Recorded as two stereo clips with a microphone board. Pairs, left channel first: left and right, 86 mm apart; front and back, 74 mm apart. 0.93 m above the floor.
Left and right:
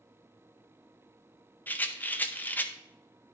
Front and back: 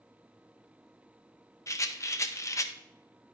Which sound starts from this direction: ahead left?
A rattle, at 1.7 s.